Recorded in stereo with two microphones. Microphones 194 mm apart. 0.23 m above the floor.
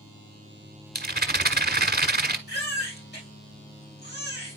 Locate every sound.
0.9 s a rattle: 55° right (ahead or behind), 1.3 m
2.5 s a baby crying: 65° left (ahead or behind), 5 m